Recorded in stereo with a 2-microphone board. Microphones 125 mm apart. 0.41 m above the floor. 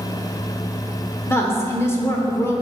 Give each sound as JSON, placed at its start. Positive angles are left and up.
{"t": 1.3, "sound": "a woman speaking", "side_deg": 20, "distance_m": 0.8}